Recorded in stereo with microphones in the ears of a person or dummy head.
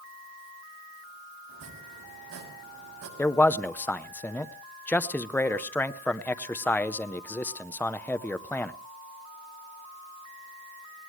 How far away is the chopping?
About 7.5 m.